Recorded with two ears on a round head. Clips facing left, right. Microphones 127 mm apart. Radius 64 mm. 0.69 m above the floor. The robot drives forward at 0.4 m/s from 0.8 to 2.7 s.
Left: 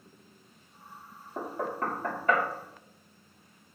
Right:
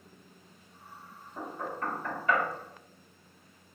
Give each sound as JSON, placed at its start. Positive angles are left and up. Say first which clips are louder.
{"t": 1.4, "sound": "knocking", "louder": "left 4 dB", "side_deg": 50, "distance_m": 0.8}